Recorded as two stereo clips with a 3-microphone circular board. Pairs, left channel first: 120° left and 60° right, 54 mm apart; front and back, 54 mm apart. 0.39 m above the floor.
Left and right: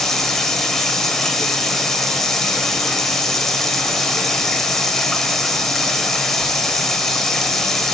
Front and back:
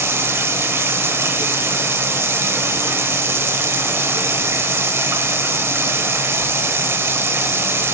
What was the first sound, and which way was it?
Running water, 155° right.